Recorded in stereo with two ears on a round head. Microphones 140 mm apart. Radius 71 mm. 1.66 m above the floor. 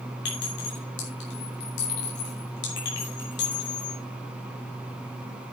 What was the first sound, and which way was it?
A clink, 75° left (ahead or behind).